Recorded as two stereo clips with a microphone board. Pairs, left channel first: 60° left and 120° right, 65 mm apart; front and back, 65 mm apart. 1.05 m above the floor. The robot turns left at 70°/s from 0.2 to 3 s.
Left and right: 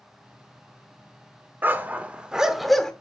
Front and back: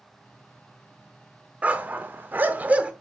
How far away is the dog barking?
About 0.7 m.